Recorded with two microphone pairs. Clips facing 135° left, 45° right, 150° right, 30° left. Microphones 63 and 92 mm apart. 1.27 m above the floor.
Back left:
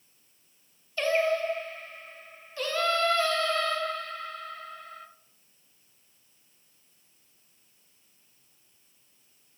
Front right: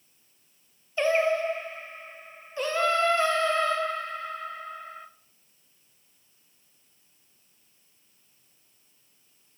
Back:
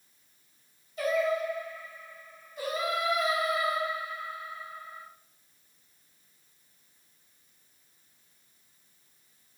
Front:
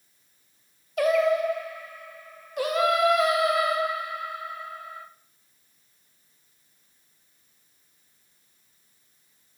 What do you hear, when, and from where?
1.0 s singing: 20° left, 0.7 m